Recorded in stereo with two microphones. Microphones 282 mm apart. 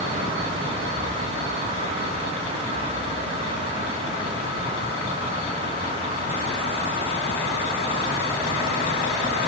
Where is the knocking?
No knocking in this recording.